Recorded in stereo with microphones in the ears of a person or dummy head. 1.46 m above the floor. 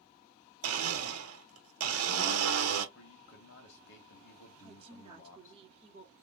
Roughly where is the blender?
Right.